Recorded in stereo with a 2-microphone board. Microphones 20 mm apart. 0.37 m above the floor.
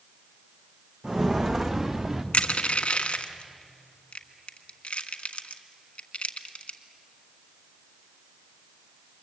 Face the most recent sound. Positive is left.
turn(degrees=85)